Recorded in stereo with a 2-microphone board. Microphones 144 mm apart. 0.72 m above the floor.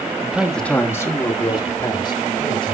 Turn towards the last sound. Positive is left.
turn(degrees=35)  # may be behind; listen again after turning